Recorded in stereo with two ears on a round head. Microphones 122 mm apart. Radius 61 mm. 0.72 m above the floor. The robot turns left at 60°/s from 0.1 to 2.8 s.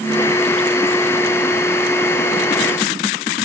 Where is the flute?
No flute in this recording.